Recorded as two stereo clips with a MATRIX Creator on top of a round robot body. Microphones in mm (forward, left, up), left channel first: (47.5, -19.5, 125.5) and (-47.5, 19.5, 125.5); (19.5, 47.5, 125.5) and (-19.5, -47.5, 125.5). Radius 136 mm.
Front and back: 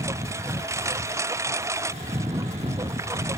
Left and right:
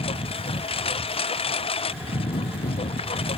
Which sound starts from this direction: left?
A lawn mower, at 0.0 s.